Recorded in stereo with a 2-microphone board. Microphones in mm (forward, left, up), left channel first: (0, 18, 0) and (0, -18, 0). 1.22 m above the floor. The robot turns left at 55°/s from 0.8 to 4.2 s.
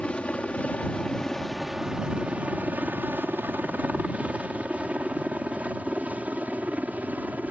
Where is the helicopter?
35° left (ahead or behind); by 7.5 s 50° right (ahead or behind).